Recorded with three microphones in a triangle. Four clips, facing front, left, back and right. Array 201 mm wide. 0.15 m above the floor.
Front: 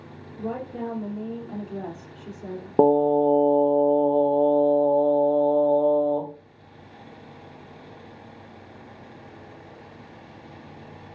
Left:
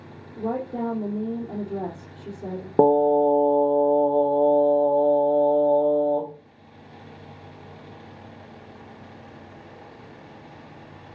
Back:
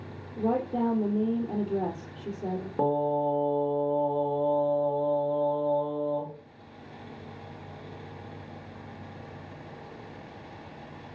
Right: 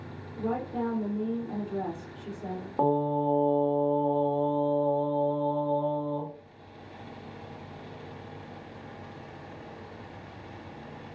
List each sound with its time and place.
0.4 s a woman speaking: 145° left, 4 m
2.8 s singing: 45° left, 1.7 m